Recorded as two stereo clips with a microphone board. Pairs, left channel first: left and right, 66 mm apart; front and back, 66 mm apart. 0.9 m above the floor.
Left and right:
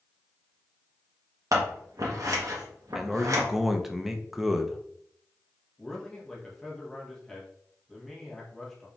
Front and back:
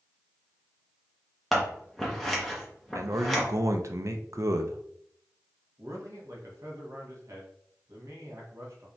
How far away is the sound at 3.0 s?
About 0.6 m.